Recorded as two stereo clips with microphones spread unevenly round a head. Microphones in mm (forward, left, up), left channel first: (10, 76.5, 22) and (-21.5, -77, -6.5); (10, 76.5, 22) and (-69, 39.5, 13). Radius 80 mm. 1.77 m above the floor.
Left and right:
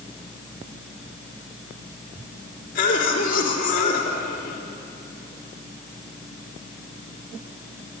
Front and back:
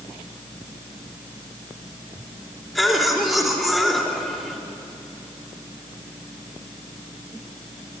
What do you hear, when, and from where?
2.8 s a cough: 115° left, 3.5 m